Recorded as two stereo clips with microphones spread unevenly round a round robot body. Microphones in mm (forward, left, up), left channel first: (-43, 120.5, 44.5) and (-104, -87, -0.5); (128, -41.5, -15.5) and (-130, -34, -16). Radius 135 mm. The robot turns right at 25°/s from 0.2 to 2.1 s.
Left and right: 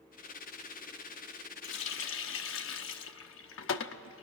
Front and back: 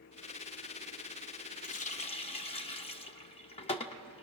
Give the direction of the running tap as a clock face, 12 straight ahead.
10 o'clock.